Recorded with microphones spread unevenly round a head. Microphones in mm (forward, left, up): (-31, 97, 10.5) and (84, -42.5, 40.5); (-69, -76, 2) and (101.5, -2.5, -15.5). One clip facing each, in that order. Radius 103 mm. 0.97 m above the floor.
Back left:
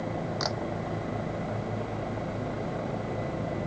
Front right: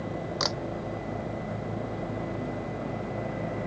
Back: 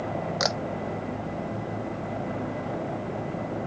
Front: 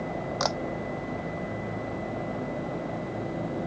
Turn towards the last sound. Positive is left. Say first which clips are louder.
# even, even
turn(degrees=-90)